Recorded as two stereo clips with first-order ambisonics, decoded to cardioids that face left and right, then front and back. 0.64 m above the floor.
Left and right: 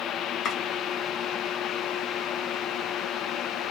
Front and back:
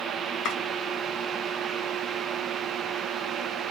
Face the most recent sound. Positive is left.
turn(degrees=40)